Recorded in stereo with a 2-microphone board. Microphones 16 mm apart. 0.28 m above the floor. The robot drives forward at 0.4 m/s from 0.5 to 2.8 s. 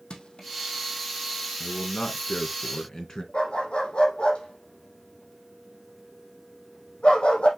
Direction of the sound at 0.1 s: 70° left (ahead or behind).